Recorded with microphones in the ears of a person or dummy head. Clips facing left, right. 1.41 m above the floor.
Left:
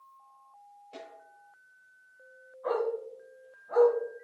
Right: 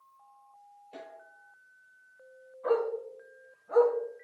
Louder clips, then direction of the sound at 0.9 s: Even; 5° right (ahead or behind).